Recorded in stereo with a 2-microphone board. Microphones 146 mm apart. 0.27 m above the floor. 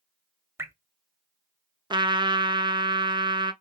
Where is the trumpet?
30° right (ahead or behind), 0.5 m.